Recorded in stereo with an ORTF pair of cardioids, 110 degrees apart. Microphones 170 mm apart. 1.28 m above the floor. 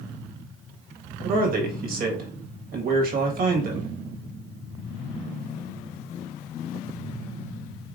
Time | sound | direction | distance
1.2 | a man speaking | 60° right | 1.6 m